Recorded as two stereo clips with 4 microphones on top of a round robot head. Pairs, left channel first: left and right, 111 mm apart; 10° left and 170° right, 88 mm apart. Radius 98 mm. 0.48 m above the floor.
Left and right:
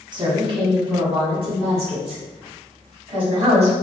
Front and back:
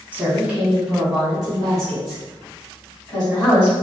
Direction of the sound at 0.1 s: 105° right.